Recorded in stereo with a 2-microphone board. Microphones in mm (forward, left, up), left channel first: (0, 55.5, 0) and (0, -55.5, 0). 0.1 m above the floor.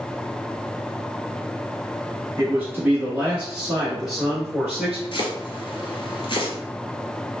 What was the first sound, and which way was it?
A man speaking, 20° right (ahead or behind).